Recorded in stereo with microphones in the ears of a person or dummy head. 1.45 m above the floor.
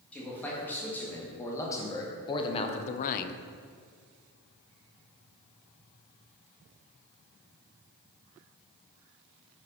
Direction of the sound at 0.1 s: 10° left (ahead or behind).